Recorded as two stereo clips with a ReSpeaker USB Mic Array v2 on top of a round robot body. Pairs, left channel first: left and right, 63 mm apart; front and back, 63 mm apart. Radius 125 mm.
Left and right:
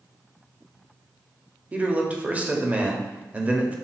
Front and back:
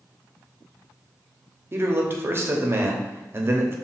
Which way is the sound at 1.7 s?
150° right.